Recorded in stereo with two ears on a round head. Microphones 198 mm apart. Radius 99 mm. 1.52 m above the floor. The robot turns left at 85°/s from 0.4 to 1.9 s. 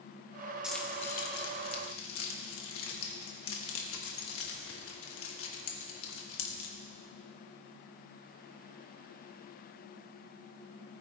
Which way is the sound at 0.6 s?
5° right (ahead or behind).